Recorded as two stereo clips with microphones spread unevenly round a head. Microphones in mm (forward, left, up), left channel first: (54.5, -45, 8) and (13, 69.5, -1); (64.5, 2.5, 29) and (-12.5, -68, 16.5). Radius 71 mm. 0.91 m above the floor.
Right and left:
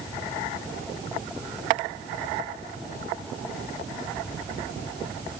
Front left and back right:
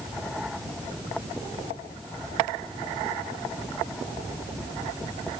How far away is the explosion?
No explosion in this recording.